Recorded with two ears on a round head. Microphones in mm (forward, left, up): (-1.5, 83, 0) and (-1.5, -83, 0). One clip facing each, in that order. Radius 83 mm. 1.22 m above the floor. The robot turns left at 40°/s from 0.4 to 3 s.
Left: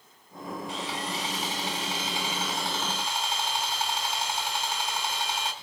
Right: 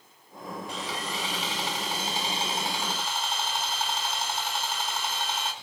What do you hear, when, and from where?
0.7 s sawing: 85° right, 4.5 m; by 5.5 s 175° right, 4.5 m